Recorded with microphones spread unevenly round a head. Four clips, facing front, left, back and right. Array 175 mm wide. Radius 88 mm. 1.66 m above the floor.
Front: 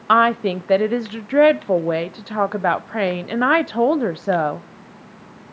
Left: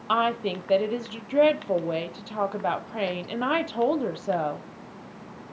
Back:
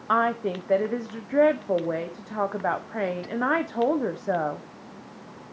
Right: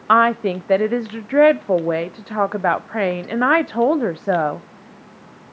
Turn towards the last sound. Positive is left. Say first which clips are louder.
# right 9 dB, front 8 dB
turn(degrees=-60)